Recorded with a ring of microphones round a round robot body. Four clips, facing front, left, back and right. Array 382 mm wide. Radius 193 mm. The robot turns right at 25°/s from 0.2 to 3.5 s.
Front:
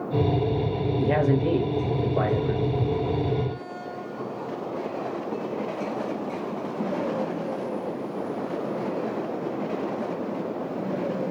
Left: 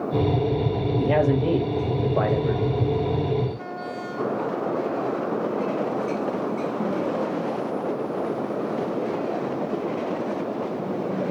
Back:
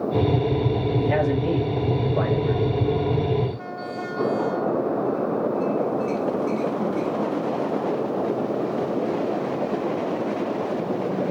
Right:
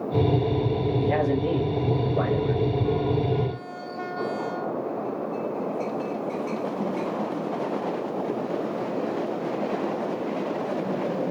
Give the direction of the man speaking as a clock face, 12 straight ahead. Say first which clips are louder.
Left 5 dB, front 2 dB; 10 o'clock.